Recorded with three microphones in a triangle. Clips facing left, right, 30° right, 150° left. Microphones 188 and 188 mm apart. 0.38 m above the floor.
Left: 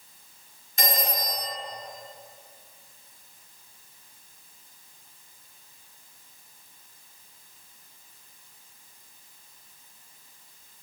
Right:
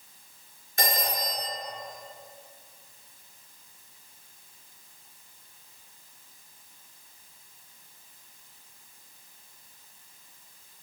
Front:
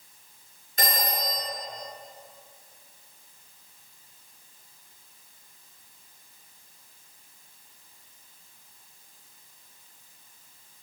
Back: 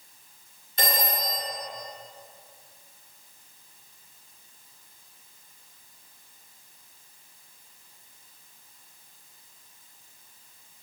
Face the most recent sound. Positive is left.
turn(degrees=-70)